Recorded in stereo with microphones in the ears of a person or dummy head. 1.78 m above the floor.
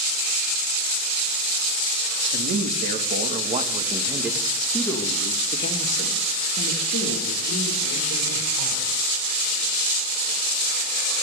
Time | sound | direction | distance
2.3 | a man speaking | 60° right (ahead or behind) | 2.5 m